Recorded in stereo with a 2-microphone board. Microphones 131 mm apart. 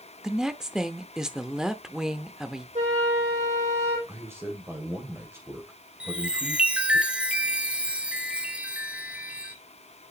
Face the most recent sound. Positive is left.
turn(degrees=-10)  # may be behind; listen again after turning